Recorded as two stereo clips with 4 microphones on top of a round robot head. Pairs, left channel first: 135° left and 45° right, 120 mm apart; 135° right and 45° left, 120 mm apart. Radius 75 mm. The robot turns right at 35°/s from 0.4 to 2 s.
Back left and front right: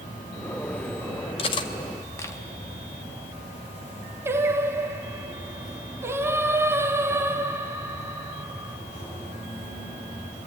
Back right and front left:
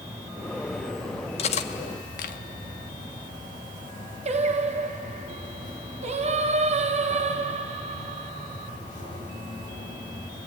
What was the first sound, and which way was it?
An insect, 115° left.